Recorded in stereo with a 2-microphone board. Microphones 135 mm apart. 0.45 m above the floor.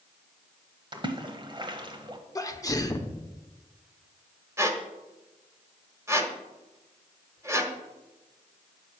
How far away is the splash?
About 1.0 m.